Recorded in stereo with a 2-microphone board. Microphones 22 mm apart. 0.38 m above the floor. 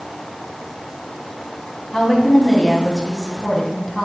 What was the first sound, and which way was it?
A woman speaking, 15° left (ahead or behind).